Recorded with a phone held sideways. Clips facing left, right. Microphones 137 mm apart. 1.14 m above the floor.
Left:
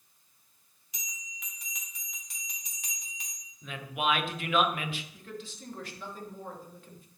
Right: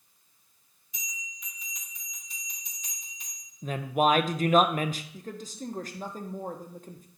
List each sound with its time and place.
0.9 s a bell: 80° left, 1.9 m
3.6 s a woman speaking: 40° right (ahead or behind), 0.5 m
5.1 s a woman speaking: 40° right (ahead or behind), 0.9 m